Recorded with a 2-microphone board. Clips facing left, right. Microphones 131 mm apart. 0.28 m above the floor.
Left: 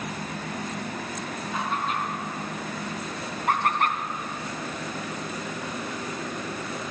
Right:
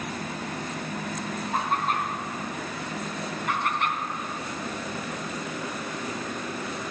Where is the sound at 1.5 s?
50° right (ahead or behind), 2.5 m.